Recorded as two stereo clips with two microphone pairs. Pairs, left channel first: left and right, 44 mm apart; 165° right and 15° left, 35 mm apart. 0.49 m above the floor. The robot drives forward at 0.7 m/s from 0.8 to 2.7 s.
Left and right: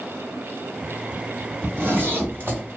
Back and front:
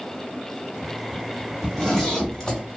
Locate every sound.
1.6 s a zipper: 75° right, 1.8 m; by 2.6 s 100° right, 1.8 m